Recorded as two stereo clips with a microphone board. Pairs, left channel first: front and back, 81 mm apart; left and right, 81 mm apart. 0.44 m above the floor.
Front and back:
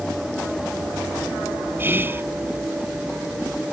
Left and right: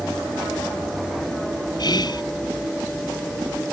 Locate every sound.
1.8 s whispering: 120° left